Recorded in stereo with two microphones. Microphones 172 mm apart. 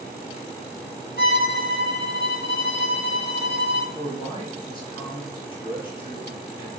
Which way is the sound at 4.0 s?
30° left (ahead or behind).